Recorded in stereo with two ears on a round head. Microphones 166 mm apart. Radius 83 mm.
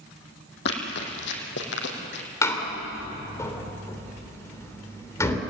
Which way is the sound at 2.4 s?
15° left (ahead or behind).